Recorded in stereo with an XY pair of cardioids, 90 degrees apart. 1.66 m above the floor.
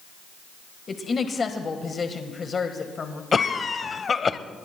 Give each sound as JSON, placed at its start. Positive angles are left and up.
{"t": 0.9, "sound": "a woman speaking", "azimuth_deg": 40, "distance_m": 1.5}
{"t": 3.3, "sound": "a cough", "azimuth_deg": 40, "distance_m": 0.9}